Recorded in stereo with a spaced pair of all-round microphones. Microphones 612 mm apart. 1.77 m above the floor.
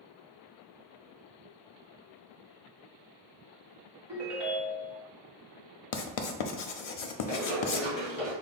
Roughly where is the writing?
Left.